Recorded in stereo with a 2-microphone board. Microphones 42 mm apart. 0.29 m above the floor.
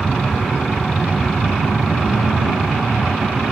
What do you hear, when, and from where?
0.0 s an aircraft: 40° left (ahead or behind)